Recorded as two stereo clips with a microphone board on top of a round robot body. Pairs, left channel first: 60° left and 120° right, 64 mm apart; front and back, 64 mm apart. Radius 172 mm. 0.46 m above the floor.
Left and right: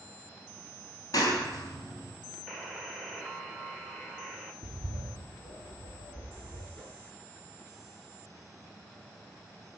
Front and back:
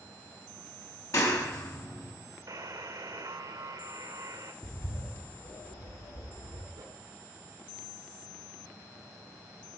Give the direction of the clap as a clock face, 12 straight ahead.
11 o'clock.